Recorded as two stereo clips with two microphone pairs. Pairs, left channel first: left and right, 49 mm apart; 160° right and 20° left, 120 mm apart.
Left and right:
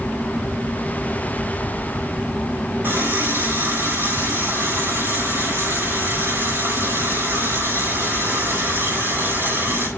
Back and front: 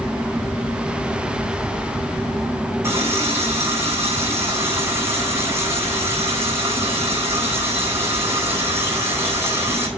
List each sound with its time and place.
2.8 s a running tap: 50° right, 8.5 m